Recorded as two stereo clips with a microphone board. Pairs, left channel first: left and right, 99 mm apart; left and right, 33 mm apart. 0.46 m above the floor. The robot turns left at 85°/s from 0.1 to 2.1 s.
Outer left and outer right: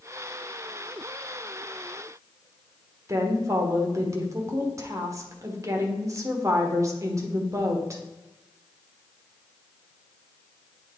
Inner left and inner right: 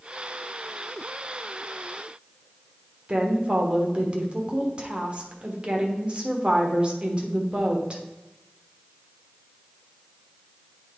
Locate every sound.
3.1 s a woman speaking: 35° right (ahead or behind), 1.2 m